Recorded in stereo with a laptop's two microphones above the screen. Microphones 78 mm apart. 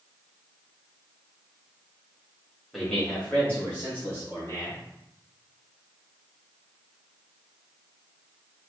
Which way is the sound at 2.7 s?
Centre (ahead or behind).